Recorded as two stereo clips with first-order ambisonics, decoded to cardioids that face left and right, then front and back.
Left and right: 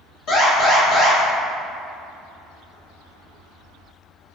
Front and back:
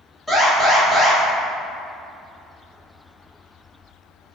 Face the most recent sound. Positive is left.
turn(degrees=80)